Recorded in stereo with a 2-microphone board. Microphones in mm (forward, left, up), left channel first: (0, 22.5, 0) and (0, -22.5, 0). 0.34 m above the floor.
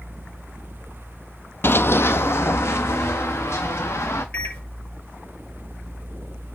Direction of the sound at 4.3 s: 40° left (ahead or behind).